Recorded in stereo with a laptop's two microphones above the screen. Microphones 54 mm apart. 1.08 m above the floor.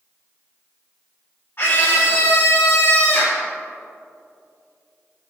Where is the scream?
50° left (ahead or behind), 1.8 m.